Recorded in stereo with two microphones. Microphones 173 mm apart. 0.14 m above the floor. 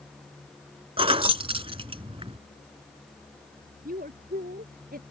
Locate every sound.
1.0 s keys jangling: 30° right (ahead or behind)
3.9 s a woman speaking: 55° right (ahead or behind)